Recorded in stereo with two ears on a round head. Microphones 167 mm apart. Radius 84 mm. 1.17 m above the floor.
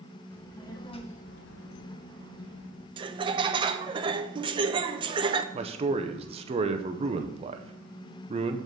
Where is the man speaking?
30° right (ahead or behind), 0.6 m.